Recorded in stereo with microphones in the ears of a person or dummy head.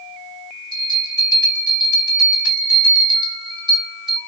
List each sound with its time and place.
0.7 s a bell: 25° right (ahead or behind), 1.3 m